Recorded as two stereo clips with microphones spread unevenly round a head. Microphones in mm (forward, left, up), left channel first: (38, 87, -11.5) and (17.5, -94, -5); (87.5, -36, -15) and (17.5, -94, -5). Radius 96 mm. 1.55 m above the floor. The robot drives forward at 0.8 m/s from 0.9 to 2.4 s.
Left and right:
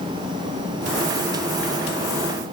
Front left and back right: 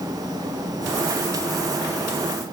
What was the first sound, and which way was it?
Only background noise.